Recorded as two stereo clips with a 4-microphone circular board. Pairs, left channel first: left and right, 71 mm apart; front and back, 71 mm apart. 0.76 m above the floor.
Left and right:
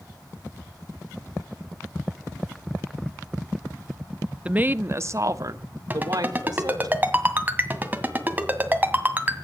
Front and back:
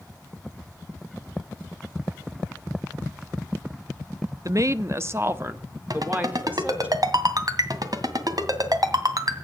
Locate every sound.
4.5 s a woman speaking: 160° right, 0.7 m; by 6.9 s 115° right, 2 m
5.9 s a ringtone: 155° right, 2.0 m